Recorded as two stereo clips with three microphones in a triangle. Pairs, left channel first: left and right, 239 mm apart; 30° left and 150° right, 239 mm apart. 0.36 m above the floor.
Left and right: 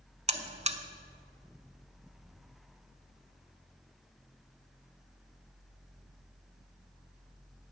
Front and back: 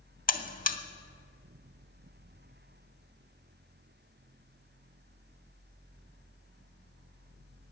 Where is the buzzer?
30° right, 0.7 m.